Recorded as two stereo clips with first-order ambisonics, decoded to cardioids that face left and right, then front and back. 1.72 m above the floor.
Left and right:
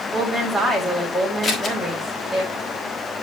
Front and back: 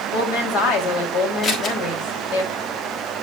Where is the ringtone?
No ringtone in this recording.